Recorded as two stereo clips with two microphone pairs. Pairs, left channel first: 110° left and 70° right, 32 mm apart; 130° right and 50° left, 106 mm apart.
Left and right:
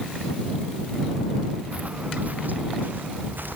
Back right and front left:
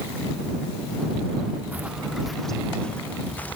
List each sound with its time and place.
1.7 s footsteps: 25° right; by 3.6 s 55° right